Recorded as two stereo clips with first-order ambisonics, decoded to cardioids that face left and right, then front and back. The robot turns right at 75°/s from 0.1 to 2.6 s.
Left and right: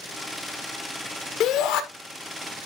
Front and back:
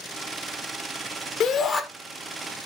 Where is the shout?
50° left, 1.4 m; by 1.8 s 80° left, 1.4 m.